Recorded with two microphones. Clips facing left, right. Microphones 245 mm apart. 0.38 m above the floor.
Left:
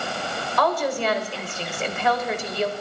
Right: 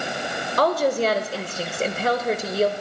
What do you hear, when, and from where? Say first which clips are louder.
0.6 s a woman speaking: right 4 dB; 40° right (ahead or behind), 1.4 m